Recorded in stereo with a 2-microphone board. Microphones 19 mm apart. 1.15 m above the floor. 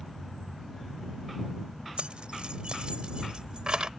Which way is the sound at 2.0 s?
75° right (ahead or behind).